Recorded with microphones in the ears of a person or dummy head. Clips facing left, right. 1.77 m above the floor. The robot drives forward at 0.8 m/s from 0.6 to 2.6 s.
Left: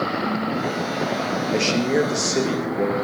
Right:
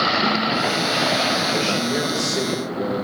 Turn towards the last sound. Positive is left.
turn(degrees=40)  # may be behind; listen again after turning